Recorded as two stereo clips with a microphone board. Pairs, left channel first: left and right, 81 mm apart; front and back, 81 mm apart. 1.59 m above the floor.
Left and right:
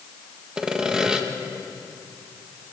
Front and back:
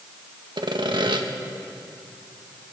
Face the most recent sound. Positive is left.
turn(degrees=-170)